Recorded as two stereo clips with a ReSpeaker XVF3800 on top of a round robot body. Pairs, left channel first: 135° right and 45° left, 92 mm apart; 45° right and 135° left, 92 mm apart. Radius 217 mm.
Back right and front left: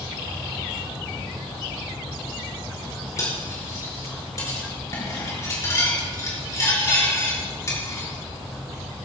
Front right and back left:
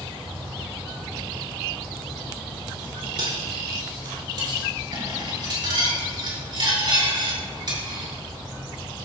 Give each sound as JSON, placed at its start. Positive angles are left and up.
{"t": 3.2, "sound": "cutlery clinking", "azimuth_deg": 170, "distance_m": 5.0}